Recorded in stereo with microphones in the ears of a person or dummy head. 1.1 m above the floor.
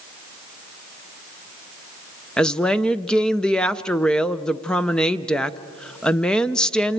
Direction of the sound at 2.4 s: 5° left (ahead or behind).